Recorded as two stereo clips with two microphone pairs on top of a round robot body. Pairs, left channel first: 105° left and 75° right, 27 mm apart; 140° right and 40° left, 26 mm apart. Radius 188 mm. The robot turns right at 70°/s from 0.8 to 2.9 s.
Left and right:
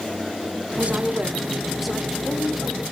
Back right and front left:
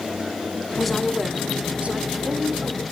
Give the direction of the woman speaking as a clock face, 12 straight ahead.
2 o'clock.